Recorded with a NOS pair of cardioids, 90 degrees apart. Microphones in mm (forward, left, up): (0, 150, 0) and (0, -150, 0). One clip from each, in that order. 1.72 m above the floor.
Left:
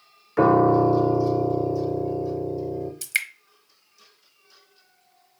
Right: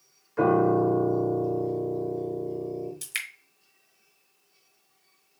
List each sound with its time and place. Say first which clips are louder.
0.4 s a piano: left 5 dB; 40° left, 0.6 m
3.0 s dripping: left 11 dB; 20° left, 1.0 m